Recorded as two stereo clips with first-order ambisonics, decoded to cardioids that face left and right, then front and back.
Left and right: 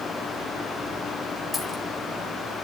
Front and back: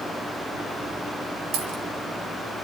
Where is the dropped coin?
Straight behind, 5.5 m.